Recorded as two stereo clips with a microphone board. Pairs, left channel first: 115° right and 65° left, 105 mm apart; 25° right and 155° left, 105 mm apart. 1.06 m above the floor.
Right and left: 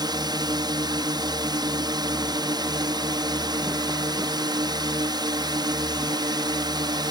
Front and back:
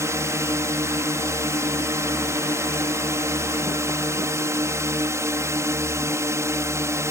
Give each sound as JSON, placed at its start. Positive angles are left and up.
{"t": 0.0, "sound": "a drone", "azimuth_deg": 100}